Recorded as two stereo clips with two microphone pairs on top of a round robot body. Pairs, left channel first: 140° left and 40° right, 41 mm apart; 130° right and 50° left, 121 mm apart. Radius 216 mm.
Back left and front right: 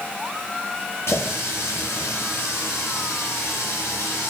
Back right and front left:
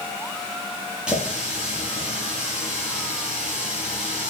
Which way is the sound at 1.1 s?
135° left.